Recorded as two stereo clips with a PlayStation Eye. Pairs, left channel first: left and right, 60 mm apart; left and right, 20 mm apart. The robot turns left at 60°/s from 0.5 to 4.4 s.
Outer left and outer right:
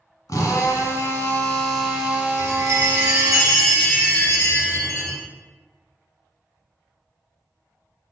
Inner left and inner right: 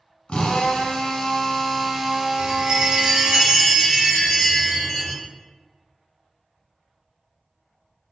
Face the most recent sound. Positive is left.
turn(degrees=140)